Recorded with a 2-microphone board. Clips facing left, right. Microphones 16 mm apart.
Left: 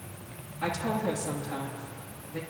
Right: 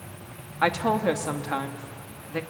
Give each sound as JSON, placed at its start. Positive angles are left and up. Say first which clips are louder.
{"t": 0.6, "sound": "a woman speaking", "louder": "right 7 dB", "side_deg": -65, "distance_m": 1.8}